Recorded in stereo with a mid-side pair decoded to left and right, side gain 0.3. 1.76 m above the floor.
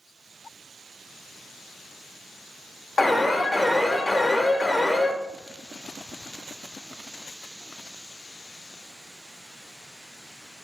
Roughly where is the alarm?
Ahead left.